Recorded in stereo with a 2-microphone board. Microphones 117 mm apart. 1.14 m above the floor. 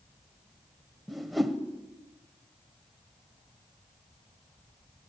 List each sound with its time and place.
1.1 s a whoosh: centre (ahead or behind), 1.6 m